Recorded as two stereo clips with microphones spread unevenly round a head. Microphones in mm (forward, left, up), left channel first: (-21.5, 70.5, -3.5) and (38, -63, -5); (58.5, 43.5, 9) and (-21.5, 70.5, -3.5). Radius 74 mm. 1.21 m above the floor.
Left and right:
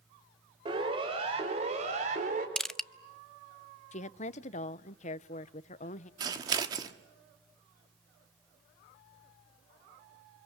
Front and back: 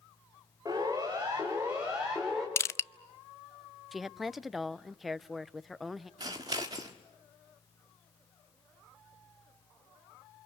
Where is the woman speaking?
80° left, 0.7 m.